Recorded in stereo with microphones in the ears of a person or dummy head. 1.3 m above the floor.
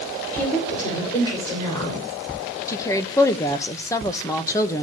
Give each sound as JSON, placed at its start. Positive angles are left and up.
{"t": 0.3, "sound": "a woman speaking", "side_deg": 30, "distance_m": 4.5}
{"t": 2.7, "sound": "a woman speaking", "side_deg": 15, "distance_m": 1.1}